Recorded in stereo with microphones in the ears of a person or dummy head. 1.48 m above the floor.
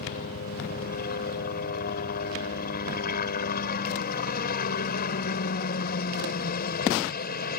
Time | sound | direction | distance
0.0 | a helicopter | 50° left (ahead or behind) | ?